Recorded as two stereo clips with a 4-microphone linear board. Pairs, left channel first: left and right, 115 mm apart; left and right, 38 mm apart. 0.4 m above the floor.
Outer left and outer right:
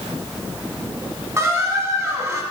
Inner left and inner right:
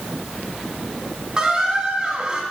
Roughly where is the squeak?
Right.